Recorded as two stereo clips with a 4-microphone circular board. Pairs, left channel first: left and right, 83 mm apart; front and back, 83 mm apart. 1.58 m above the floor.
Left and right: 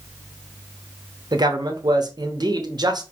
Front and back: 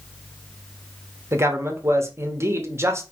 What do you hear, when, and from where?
1.3 s a man speaking: 120° right, 0.8 m